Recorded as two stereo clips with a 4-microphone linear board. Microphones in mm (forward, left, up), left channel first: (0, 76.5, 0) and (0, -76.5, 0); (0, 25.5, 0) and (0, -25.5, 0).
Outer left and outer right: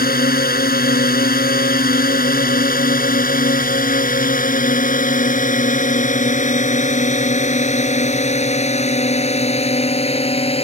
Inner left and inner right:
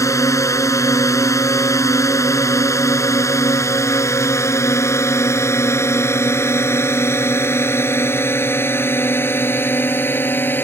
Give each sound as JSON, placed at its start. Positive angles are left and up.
{"t": 0.0, "sound": "a drone", "side_deg": 75}